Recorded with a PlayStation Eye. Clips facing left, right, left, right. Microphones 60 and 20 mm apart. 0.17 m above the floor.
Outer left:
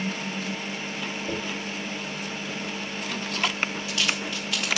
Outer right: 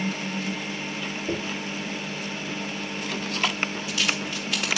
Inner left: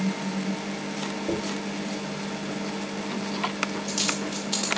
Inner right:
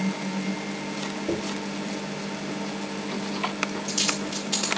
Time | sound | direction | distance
1.3 | a dropped coin | 5° right (ahead or behind) | 3 m